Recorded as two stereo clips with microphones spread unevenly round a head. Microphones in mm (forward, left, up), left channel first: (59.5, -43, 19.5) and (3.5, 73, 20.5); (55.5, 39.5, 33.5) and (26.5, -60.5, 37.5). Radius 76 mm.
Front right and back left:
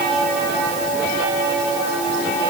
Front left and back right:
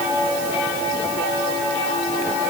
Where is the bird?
No bird in this recording.